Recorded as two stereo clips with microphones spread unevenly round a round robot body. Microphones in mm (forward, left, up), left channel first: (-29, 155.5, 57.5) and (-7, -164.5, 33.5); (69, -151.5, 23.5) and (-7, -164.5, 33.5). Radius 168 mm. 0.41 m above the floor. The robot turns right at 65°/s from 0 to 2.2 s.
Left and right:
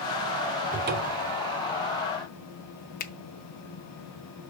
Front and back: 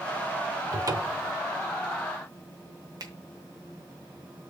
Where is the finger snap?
155° left, 0.8 m.